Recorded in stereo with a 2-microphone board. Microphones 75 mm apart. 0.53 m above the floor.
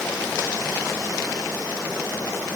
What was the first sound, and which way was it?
Only background noise.